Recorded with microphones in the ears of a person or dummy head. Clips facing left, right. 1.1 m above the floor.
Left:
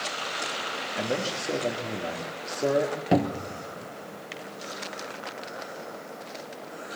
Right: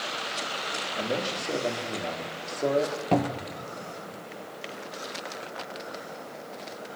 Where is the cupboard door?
15° left (ahead or behind), 1.0 m.